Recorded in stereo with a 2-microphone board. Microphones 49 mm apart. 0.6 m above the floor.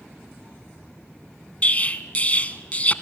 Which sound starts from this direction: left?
An explosion, at 1.6 s.